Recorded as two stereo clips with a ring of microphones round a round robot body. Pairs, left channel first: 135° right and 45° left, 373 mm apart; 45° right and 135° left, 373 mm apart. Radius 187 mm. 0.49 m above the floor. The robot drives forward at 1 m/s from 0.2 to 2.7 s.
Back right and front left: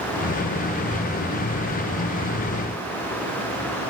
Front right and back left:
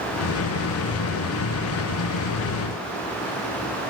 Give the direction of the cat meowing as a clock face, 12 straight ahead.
I don't hear a cat meowing.